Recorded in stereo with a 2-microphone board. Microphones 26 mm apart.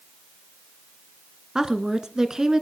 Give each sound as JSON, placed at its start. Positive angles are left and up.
{"t": 1.6, "sound": "a woman speaking", "side_deg": -25, "distance_m": 1.2}